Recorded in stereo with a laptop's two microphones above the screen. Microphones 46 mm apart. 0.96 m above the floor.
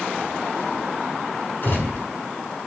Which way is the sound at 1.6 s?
40° left (ahead or behind).